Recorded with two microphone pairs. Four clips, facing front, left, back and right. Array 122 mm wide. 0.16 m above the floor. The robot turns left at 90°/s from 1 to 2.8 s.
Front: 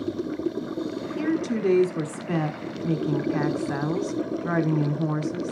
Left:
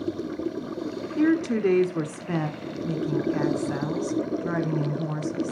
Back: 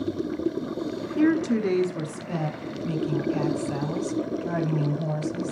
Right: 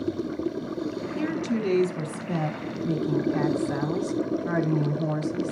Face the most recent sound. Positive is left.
turn(degrees=0)